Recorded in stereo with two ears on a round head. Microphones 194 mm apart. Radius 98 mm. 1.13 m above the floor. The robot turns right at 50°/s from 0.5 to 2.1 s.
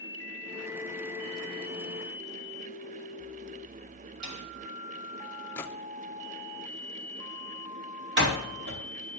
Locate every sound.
4.2 s a snare drum: 80° right, 3.5 m
5.6 s a gunshot: 10° left (ahead or behind), 0.9 m
8.2 s a door slam: 55° right (ahead or behind), 2 m